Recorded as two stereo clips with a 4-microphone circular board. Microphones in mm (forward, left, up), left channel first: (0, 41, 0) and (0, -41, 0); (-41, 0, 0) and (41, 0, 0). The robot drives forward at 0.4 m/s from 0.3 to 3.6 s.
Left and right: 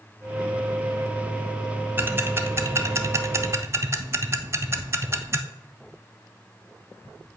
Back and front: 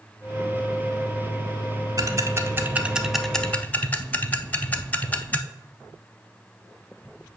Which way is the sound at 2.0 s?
30° right.